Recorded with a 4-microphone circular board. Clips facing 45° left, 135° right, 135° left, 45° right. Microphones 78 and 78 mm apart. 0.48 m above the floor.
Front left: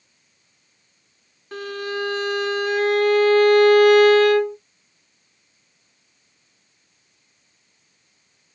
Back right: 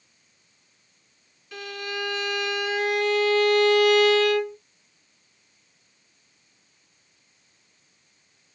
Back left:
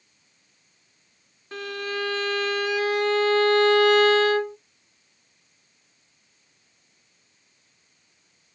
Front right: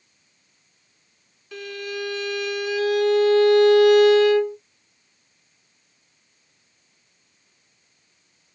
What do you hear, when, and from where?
1.5 s a violin: 90° left, 1.0 m